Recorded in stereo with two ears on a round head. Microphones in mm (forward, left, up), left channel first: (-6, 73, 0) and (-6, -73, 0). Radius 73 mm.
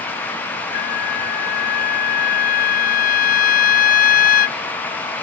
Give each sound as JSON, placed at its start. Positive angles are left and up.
{"t": 0.7, "sound": "a trumpet", "side_deg": 55}